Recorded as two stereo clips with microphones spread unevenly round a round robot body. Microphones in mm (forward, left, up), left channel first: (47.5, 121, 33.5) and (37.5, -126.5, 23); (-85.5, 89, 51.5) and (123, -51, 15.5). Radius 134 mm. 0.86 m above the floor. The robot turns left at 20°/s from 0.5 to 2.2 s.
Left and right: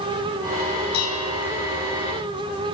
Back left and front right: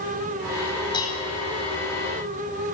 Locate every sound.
0.9 s dishes clattering: 75° left, 4.5 m; by 1.4 s 65° left, 4.5 m